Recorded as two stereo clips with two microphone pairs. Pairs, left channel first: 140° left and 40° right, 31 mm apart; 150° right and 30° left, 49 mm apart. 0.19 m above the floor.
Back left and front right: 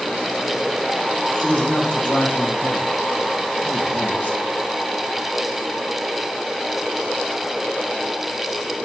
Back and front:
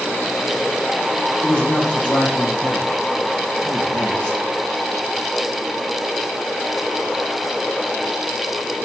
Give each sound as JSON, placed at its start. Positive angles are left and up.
{"t": 1.4, "sound": "a man speaking", "azimuth_deg": 145, "distance_m": 5.0}